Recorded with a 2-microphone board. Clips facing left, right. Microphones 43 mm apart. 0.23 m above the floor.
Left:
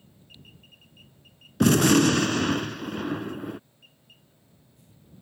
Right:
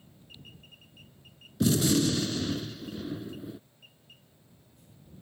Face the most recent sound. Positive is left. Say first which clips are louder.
# left 6 dB
turn(degrees=70)  # may be behind; listen again after turning